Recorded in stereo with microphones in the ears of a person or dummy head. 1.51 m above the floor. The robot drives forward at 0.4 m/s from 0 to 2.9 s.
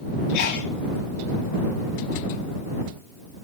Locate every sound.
0.3 s a sneeze: 65° left (ahead or behind), 5 m; by 0.7 s 70° left (ahead or behind), 5 m